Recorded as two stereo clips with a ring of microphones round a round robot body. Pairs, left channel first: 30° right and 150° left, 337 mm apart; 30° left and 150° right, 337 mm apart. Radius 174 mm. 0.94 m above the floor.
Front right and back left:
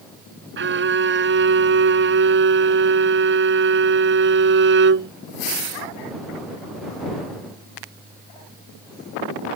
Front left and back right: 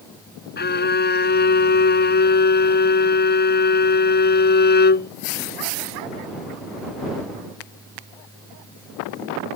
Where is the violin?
90° left.